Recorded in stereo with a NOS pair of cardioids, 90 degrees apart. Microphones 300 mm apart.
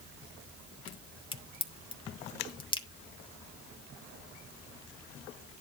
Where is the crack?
15° left, 1.6 m.